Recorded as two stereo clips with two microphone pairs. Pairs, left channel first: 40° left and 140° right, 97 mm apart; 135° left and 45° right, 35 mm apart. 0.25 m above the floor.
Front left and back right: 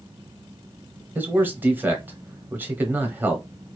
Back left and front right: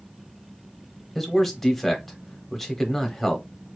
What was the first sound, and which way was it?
A man speaking, 155° right.